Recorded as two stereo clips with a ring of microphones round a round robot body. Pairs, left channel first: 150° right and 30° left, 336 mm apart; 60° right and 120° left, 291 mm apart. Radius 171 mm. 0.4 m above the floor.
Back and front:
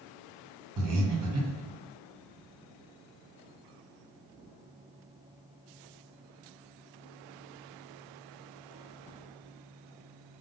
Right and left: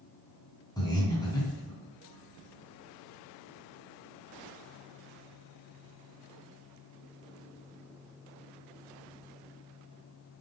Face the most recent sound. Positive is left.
turn(degrees=10)